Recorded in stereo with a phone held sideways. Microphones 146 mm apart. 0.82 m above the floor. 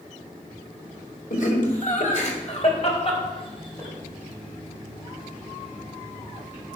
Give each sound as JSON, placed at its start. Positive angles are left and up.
{"t": 1.3, "sound": "laughter", "side_deg": 70, "distance_m": 3.0}